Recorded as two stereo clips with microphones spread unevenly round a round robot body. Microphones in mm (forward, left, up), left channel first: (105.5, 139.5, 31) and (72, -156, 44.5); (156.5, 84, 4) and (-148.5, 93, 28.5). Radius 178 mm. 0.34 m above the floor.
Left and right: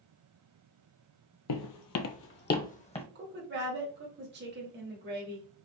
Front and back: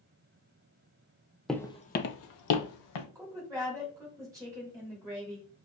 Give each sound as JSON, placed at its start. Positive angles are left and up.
{"t": 1.5, "sound": "footsteps", "azimuth_deg": 90, "distance_m": 0.5}
{"t": 3.1, "sound": "a woman speaking", "azimuth_deg": -100, "distance_m": 1.1}